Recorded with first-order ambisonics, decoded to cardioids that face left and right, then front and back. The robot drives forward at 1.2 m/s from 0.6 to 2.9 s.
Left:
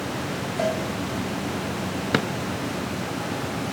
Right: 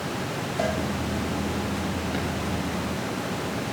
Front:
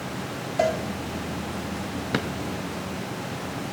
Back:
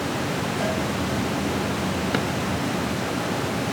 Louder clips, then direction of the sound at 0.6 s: Left 2 dB, front 6 dB; straight ahead.